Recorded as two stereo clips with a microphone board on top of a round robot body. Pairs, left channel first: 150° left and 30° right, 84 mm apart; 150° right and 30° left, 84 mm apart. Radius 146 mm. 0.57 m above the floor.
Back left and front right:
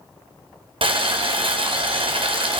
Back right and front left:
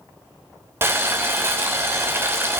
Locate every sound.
0.8 s boiling: 35° right, 1.6 m